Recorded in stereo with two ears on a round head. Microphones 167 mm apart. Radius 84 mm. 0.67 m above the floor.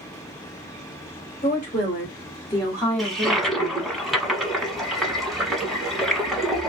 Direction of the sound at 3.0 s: Centre (ahead or behind).